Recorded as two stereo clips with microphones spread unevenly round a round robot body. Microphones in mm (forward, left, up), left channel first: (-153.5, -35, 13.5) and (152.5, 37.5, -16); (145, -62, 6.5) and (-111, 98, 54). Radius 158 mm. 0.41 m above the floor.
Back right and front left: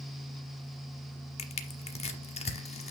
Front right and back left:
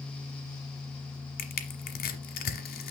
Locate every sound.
1.4 s crushing: 95° right, 1.1 m